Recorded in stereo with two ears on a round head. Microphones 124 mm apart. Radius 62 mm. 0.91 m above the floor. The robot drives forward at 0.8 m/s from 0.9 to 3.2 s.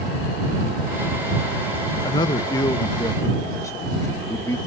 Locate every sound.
2.0 s a man speaking: 30° left (ahead or behind); by 4.6 s 20° left (ahead or behind)